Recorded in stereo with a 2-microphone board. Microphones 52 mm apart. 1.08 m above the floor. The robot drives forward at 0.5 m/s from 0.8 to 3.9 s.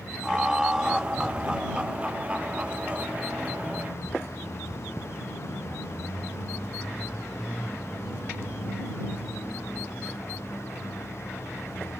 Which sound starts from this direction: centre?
Laughter, at 0.2 s.